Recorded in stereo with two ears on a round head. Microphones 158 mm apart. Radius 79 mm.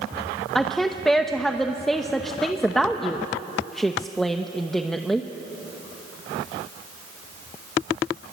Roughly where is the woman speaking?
Centre.